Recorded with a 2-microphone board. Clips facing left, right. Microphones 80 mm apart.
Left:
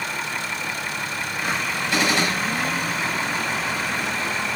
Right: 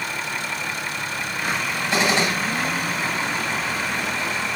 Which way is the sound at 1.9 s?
25° right (ahead or behind).